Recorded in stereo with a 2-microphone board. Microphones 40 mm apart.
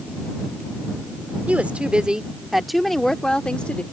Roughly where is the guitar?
No guitar in this recording.